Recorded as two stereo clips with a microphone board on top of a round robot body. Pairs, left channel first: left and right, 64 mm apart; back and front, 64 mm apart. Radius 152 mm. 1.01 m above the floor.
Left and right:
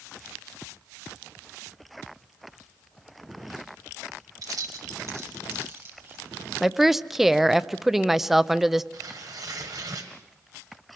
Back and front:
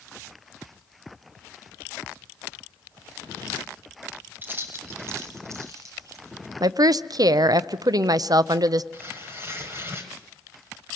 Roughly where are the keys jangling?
Ahead right.